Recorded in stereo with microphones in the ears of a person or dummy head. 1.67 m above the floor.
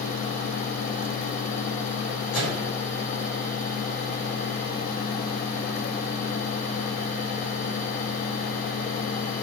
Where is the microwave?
70° left (ahead or behind), 4.5 m.